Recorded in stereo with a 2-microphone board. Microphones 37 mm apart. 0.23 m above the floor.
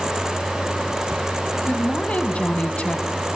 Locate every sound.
1.6 s a woman speaking: 35° left (ahead or behind), 2 m